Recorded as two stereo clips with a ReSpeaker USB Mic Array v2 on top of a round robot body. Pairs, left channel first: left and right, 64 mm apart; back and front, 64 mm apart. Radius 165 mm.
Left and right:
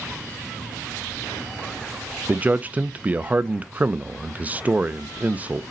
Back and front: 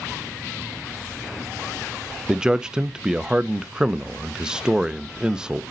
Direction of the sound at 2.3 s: 65° right.